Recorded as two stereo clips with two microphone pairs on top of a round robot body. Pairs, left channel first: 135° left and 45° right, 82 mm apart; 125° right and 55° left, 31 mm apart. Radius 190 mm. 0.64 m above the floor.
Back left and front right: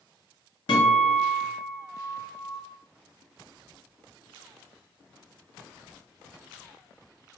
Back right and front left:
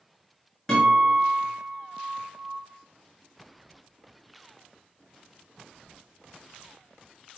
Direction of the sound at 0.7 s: 155° left.